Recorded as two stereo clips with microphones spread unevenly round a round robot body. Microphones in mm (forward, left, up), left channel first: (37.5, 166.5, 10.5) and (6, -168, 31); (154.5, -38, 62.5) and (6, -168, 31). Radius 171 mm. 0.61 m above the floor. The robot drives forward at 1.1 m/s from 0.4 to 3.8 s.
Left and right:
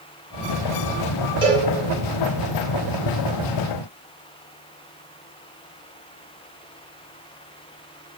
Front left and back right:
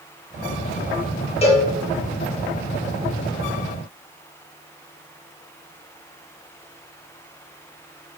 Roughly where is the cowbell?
Ahead.